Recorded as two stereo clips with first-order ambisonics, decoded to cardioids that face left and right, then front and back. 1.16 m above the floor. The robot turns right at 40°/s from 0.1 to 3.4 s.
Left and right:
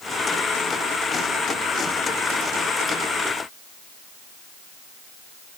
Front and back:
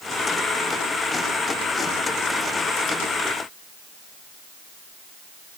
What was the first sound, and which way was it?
Only background noise.